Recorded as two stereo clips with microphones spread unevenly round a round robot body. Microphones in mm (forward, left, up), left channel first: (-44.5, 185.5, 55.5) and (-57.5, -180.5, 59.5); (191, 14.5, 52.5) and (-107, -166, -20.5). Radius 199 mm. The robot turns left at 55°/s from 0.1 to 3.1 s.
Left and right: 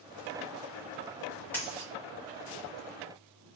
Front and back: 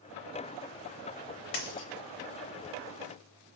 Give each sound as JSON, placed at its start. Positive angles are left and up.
{"t": 1.5, "sound": "a dropped coin", "azimuth_deg": 5, "distance_m": 1.0}